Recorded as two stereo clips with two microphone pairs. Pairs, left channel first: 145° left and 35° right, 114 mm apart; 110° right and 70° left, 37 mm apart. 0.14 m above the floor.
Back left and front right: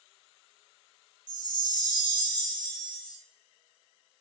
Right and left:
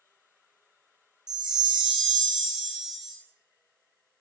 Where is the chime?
Straight ahead, 0.6 m.